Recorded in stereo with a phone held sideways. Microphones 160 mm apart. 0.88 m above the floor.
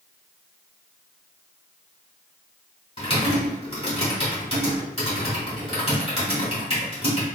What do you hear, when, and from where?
3.0 s typing on a keyboard: 40° left (ahead or behind), 2.0 m